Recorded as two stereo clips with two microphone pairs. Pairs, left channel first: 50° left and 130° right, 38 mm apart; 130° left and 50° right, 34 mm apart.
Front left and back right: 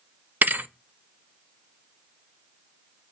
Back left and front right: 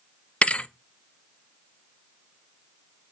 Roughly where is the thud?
Behind.